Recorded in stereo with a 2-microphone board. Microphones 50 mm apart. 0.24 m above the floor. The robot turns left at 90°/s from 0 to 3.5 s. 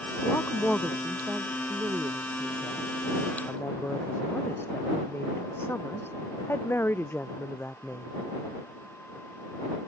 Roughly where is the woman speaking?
Ahead left.